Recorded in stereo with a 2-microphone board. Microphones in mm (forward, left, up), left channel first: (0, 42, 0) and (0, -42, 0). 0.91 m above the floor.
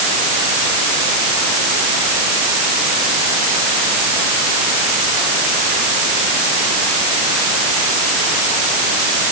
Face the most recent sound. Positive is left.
No sound to turn to.